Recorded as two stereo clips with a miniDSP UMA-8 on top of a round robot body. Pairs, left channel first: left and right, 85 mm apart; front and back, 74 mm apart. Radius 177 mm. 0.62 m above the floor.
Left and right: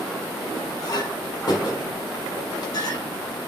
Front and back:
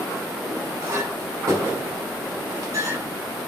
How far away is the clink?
About 1.9 m.